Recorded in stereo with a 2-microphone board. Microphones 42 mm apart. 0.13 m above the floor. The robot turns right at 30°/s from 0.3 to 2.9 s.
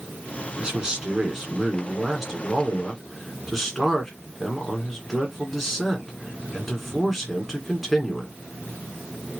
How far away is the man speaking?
About 1.8 m.